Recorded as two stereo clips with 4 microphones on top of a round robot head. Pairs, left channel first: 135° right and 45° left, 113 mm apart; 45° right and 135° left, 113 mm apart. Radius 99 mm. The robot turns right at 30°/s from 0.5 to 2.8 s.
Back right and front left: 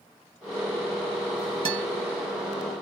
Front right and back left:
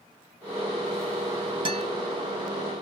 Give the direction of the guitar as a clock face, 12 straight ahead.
9 o'clock.